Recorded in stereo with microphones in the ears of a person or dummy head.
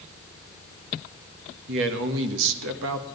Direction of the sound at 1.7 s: 70° right (ahead or behind).